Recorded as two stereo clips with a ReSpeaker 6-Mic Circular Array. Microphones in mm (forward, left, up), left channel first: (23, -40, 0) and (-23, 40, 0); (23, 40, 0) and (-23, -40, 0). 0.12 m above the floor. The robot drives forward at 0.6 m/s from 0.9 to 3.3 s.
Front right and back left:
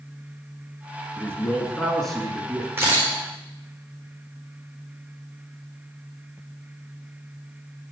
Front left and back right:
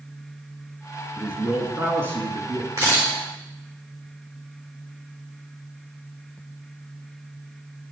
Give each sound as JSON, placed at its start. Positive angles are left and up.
{"t": 1.2, "sound": "a man speaking", "azimuth_deg": -65, "distance_m": 1.1}
{"t": 2.8, "sound": "a camera shutter", "azimuth_deg": -175, "distance_m": 4.0}